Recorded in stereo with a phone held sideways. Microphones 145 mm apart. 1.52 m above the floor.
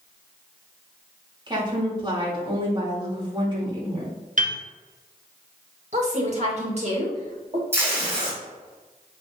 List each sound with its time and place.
1.5 s a woman speaking: 30° right (ahead or behind), 3 m
4.4 s a piano: 55° right (ahead or behind), 1.3 m
5.9 s a woman speaking: 50° right (ahead or behind), 2.5 m
7.7 s tape being pulled: 15° right (ahead or behind), 3 m